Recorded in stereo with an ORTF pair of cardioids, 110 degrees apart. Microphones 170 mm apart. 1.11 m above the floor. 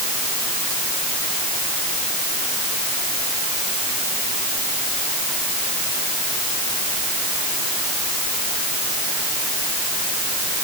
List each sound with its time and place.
Only background noise.